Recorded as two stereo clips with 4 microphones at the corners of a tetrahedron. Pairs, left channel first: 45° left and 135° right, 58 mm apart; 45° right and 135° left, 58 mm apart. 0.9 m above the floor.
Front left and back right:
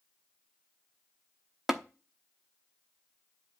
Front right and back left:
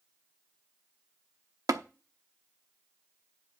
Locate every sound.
1.7 s tapping: 140° left, 0.8 m